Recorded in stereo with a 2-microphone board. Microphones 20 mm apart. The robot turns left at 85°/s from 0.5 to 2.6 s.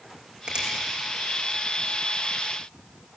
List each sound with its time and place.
0.5 s a finger snap: 60° right (ahead or behind), 9 m; by 0.7 s 75° right (ahead or behind), 9 m